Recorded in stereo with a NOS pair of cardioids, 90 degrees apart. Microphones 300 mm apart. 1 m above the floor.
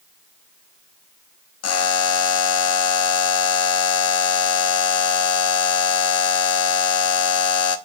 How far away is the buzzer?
About 1.0 m.